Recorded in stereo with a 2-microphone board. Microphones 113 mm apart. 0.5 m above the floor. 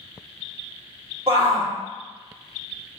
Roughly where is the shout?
Right.